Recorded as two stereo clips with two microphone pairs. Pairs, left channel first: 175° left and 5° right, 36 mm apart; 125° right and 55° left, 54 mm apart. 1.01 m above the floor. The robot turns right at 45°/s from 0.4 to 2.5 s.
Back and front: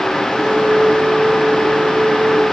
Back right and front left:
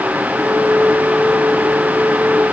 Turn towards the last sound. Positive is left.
No sound to turn to.